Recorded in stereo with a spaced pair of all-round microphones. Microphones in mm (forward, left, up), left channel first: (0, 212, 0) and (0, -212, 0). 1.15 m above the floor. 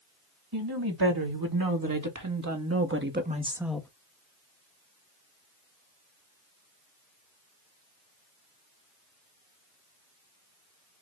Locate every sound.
0.5 s a woman speaking: 60° right (ahead or behind), 2 m; by 3.9 s 5° left (ahead or behind), 0.7 m